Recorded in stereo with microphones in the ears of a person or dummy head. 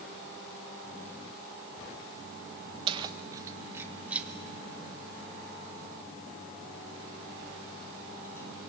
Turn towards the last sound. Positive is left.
turn(degrees=10)  # may be behind; listen again after turning